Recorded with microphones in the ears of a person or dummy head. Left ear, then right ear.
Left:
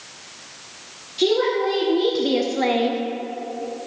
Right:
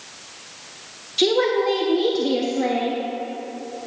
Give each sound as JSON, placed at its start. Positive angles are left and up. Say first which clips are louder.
{"t": 1.2, "sound": "a woman speaking", "louder": "right 1 dB", "side_deg": -30, "distance_m": 1.2}